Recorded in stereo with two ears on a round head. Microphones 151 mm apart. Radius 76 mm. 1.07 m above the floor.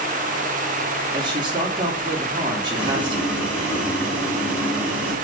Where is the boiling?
5° right (ahead or behind), 3 m.